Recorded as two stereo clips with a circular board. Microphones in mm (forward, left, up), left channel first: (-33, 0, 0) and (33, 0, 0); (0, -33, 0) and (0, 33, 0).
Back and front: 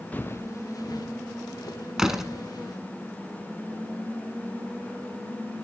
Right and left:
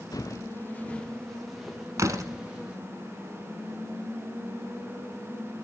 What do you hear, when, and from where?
0.1 s footsteps: 115° right, 1.1 m; by 2.8 s 165° left, 4.5 m
2.0 s a door slam: 80° left, 1.1 m